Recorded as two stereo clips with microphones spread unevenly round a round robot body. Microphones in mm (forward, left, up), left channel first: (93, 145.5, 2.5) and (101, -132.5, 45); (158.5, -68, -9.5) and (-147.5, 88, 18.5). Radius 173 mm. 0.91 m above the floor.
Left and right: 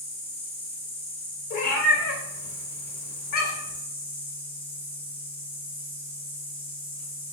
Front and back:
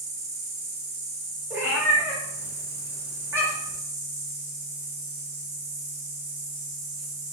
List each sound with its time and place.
0.0 s an insect: 165° left, 1.5 m
1.5 s a cat meowing: 70° left, 0.9 m